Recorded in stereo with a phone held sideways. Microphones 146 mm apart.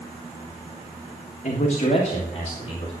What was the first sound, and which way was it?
A man speaking, 55° left (ahead or behind).